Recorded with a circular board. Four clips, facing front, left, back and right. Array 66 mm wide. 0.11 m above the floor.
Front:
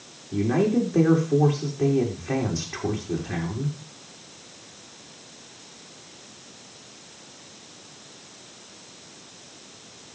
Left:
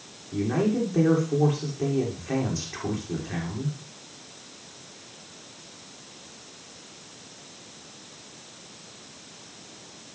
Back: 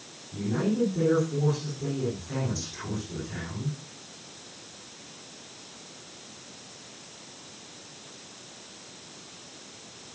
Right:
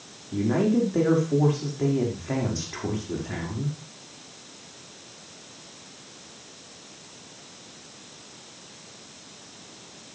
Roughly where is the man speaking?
Ahead right.